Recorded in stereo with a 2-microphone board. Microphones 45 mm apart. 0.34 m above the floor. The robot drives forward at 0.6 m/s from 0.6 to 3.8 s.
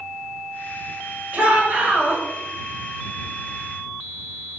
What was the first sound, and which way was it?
A shout, 35° right (ahead or behind).